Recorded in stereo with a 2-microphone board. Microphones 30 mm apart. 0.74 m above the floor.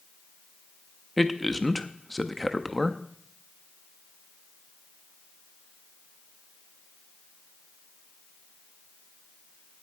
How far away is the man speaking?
About 0.6 m.